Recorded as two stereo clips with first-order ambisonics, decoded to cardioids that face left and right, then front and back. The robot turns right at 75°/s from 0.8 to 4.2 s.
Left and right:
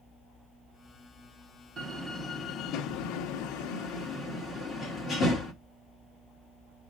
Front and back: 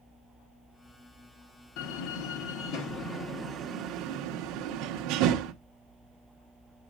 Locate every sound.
1.8 s a door slam: 25° right, 1.8 m; by 5.5 s 155° left, 1.8 m